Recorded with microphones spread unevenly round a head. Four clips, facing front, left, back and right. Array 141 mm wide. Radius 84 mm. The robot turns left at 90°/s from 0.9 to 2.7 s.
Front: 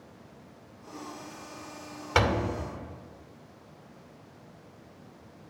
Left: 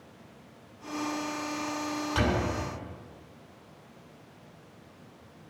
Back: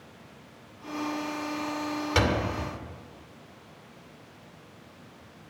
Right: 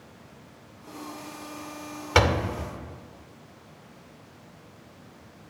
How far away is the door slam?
About 2 m.